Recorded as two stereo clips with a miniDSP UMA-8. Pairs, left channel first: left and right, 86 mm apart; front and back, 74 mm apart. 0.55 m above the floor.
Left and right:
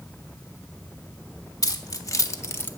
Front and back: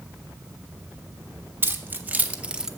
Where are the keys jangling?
125° left, 1.0 m; by 2.7 s 110° left, 0.6 m.